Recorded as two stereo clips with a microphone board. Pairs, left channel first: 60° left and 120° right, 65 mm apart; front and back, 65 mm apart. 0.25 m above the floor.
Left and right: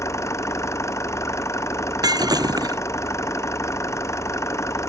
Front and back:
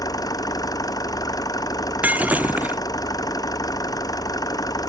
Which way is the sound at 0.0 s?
15° left.